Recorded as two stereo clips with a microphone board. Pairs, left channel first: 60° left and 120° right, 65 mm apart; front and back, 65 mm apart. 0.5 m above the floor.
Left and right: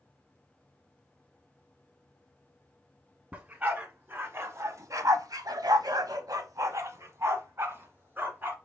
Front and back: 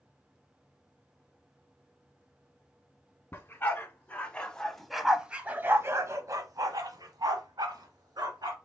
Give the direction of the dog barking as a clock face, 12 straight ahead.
2 o'clock.